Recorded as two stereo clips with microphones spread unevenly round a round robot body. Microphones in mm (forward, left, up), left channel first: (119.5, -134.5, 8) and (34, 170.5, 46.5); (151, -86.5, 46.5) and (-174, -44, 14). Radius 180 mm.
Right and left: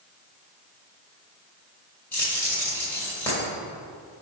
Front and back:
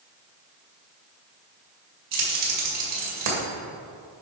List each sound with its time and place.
2.1 s keys jangling: 160° right, 2 m